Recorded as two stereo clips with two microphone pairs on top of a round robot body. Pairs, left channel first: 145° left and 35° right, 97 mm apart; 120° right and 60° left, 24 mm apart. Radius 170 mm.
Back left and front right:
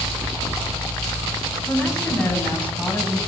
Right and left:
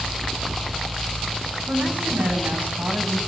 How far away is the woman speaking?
About 9 m.